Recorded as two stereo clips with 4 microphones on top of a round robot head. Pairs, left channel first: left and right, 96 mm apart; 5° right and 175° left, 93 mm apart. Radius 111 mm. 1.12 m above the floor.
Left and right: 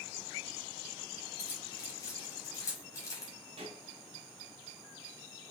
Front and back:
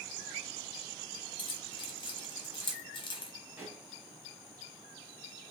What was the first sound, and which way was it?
Keys jangling, 30° left.